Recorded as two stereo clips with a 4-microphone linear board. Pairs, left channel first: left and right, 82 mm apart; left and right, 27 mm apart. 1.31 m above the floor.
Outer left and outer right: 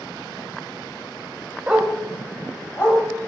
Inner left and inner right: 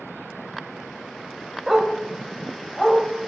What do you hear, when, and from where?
1.7 s a dog barking: 15° right (ahead or behind), 1.9 m; by 3.0 s 35° left (ahead or behind), 3 m